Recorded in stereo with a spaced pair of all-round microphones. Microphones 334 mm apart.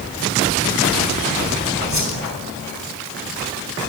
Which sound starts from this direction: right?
A whoosh, at 1.9 s.